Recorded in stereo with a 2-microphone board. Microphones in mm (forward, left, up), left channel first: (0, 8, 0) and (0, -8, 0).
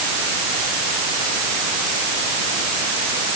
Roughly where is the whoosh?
I don't hear a whoosh.